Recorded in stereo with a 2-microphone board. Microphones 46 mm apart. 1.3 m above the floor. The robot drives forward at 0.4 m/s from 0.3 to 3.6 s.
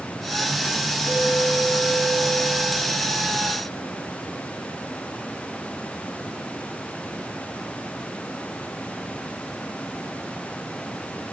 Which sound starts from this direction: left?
A clink, at 1.1 s.